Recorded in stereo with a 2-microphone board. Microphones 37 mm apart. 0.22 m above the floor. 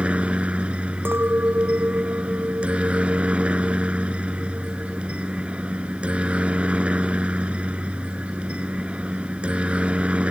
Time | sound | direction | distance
0.0 | a helicopter | 30° right (ahead or behind) | ?
1.1 | a clink | 75° right (ahead or behind) | ?